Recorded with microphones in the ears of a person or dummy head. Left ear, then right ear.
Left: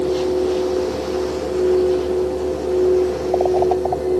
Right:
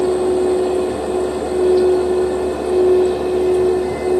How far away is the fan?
About 1.3 m.